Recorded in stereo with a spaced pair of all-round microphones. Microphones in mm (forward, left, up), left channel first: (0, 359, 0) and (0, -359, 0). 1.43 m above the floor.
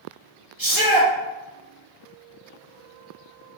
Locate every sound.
0.6 s a shout: 30° right (ahead or behind), 1.5 m